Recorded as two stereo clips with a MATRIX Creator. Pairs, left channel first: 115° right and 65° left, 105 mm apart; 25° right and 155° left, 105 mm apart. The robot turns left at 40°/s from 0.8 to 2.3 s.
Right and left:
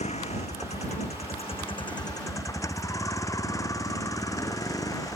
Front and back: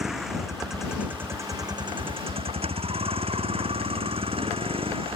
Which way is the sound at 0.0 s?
115° right.